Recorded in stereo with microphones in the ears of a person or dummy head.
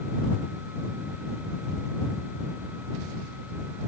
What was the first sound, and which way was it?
Only background noise.